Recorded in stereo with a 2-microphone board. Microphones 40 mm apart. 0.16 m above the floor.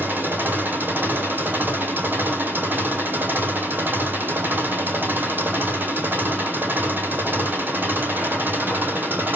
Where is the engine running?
50° right (ahead or behind), 1.7 m.